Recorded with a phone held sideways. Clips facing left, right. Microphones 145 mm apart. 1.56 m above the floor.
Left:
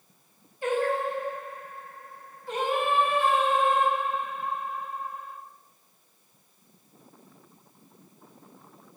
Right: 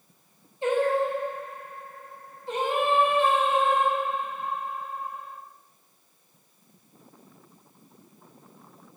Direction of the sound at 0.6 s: 25° right (ahead or behind).